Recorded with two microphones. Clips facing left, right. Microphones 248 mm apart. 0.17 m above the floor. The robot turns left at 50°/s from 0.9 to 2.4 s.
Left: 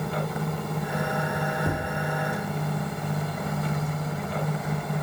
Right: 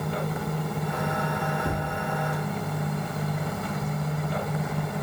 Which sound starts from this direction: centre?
Tapping, at 1.6 s.